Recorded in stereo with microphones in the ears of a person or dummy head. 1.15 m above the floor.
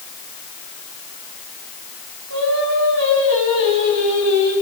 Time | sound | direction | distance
2.3 | singing | 80° right | 5.5 m